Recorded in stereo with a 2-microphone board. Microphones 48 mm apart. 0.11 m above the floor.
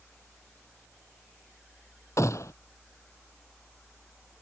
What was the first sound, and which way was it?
A gunshot, 65° left (ahead or behind).